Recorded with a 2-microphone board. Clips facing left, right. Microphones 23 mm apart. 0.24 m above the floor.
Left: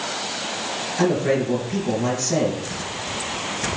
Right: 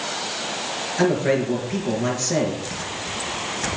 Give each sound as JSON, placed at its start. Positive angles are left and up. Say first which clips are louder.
{"t": 1.0, "sound": "a man speaking", "louder": "even", "side_deg": -10, "distance_m": 3.5}